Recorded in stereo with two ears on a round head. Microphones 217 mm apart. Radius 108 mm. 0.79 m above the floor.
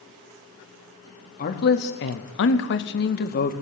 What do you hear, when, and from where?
1.4 s a man speaking: 40° left (ahead or behind), 1.2 m; by 3.5 s 35° left (ahead or behind), 1.2 m